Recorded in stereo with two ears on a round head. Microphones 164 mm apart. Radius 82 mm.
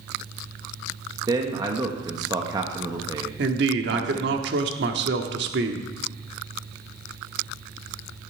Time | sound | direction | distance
1.3 | a man speaking | 20° right (ahead or behind) | 1.0 m
3.4 | a man speaking | 60° right (ahead or behind) | 1.2 m